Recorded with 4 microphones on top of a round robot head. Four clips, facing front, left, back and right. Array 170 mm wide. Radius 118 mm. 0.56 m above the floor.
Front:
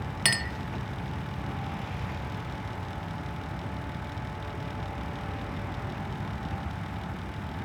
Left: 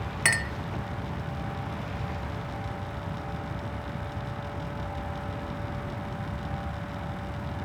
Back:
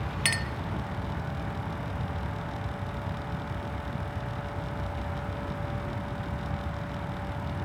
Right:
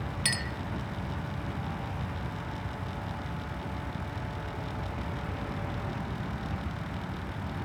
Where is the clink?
65° left, 0.7 m.